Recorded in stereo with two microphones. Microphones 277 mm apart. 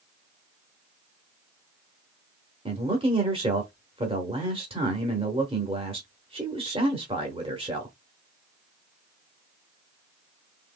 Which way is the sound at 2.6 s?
20° right (ahead or behind).